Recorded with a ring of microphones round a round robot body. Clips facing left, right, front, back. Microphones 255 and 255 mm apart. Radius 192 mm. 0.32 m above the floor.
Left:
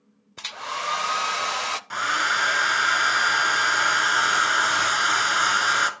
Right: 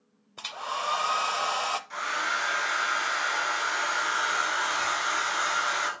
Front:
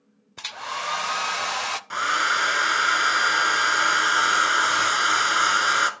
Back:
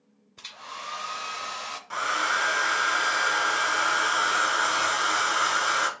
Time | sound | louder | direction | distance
0.4 | a hair dryer | left 1 dB, front 9 dB | 25° left | 0.5 m
1.9 | a hair dryer | left 4 dB, back 1 dB | 65° left | 0.9 m